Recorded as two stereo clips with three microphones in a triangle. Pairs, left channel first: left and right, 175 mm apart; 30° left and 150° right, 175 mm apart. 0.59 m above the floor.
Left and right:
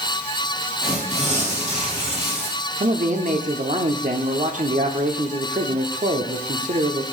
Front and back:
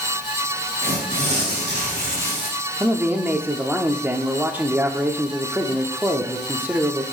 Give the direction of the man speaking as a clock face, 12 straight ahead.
3 o'clock.